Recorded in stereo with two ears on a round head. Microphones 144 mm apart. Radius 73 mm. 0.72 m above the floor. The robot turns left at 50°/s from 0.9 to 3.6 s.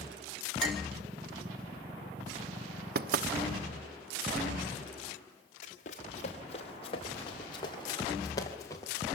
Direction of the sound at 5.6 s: 50° left (ahead or behind).